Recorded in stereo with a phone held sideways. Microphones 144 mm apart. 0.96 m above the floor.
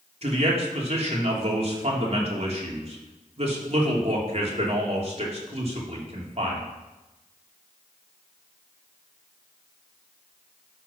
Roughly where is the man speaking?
Right.